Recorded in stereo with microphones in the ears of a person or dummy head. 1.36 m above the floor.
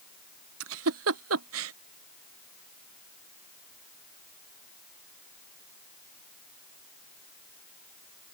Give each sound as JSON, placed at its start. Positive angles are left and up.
{"t": 0.6, "sound": "a giggle", "side_deg": -75}